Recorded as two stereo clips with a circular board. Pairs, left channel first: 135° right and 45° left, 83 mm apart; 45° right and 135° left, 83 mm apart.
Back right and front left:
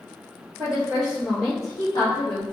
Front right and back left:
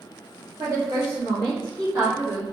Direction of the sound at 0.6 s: 135° left.